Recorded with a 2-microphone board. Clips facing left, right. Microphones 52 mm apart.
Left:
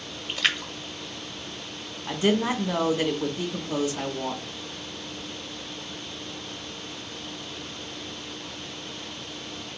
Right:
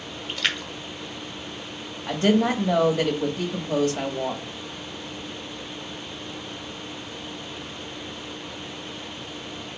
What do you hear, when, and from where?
0.3 s a splash: 5° left (ahead or behind), 0.9 m
2.1 s a woman speaking: 60° right (ahead or behind), 1.7 m